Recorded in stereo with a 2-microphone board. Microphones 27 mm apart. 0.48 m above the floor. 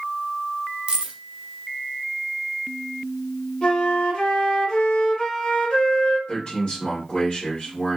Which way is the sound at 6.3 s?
35° left (ahead or behind).